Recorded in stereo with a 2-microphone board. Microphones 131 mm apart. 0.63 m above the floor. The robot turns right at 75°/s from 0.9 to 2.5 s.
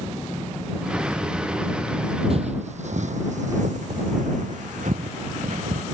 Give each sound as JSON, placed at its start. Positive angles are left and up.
{"t": 2.3, "sound": "footsteps", "side_deg": -50}